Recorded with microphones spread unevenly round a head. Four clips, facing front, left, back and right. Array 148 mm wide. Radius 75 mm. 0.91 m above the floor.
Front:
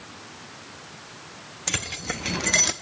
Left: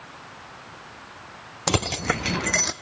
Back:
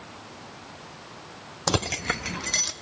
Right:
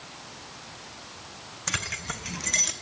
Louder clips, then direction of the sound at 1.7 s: Left 11 dB, back 7 dB; 140° left.